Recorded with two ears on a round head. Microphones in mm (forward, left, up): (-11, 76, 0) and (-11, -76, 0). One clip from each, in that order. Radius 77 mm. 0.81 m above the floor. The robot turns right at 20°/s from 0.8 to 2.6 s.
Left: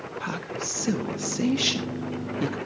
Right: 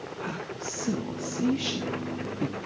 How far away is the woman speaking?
About 1.1 m.